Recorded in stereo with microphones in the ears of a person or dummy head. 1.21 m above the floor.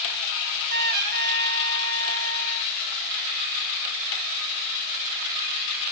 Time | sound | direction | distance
0.4 | a trumpet | 50° right (ahead or behind) | 1.5 m